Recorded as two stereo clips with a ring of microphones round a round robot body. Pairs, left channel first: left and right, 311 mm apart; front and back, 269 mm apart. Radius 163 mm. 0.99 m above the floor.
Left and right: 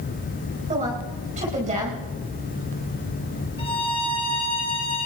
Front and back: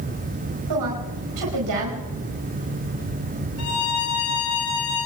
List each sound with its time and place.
0.7 s a woman speaking: 160° right, 5 m
3.6 s a violin: 20° left, 5 m